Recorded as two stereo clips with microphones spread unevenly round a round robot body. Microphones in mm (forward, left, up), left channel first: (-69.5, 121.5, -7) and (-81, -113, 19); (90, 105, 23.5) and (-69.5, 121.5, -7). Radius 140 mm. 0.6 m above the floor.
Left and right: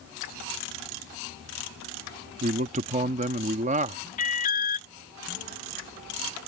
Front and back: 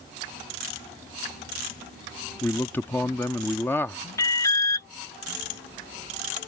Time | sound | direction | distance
2.4 | a man speaking | 95° right | ?
4.2 | an alarm | 70° left | ?